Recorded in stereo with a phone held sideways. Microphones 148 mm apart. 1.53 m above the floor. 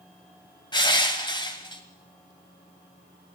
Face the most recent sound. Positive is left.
turn(degrees=30)  # may be behind; listen again after turning